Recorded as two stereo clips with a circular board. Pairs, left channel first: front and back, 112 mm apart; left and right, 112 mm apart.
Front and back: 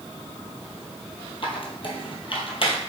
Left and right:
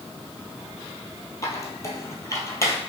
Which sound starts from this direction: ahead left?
A squeak, at 1.4 s.